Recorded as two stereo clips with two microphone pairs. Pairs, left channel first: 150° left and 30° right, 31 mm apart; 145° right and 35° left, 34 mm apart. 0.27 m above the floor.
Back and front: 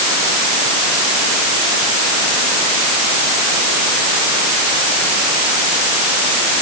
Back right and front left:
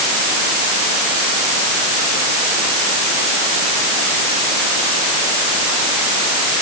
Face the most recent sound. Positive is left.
No sound to turn to.